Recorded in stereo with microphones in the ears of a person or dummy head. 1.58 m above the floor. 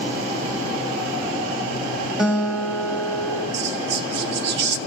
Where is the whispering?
70° right (ahead or behind), 1.0 m.